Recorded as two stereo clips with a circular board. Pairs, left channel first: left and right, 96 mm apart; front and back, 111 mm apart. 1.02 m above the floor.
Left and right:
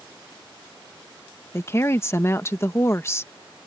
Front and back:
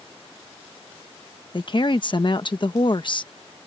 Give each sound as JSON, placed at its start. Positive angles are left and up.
{"t": 1.5, "sound": "a woman speaking", "azimuth_deg": 35}